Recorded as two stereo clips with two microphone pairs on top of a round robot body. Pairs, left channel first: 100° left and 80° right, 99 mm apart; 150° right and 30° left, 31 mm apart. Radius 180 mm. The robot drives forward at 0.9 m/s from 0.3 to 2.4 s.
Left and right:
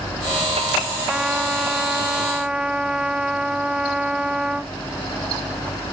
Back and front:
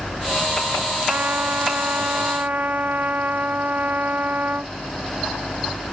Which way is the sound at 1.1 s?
Straight ahead.